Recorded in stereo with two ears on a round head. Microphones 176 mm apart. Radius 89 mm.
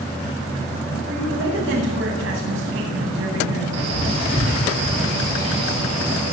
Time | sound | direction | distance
1.1 | a woman speaking | 60° right (ahead or behind) | 9.5 m
3.7 | a man speaking | 65° right (ahead or behind) | 8 m